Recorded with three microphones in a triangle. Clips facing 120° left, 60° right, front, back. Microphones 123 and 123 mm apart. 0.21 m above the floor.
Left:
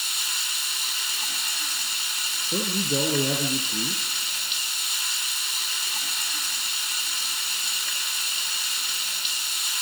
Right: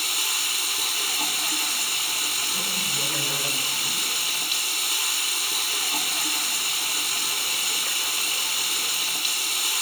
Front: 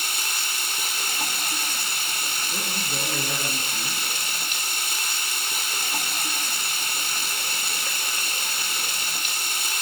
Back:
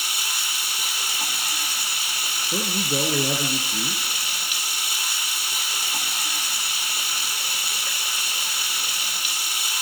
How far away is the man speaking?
About 4.5 m.